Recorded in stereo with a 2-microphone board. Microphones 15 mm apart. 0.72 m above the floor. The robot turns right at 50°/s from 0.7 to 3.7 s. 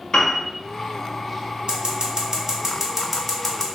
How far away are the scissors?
About 1.1 m.